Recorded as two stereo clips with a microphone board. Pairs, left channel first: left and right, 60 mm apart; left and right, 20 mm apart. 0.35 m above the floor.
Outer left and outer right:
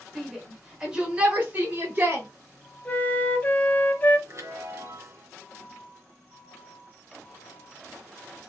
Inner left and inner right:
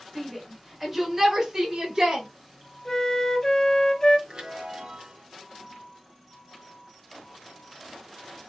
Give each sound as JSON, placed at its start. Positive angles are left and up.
{"t": 0.1, "sound": "a shout", "side_deg": 5, "distance_m": 1.5}
{"t": 2.9, "sound": "a flute", "side_deg": 30, "distance_m": 0.5}
{"t": 4.3, "sound": "a chime", "side_deg": -50, "distance_m": 1.0}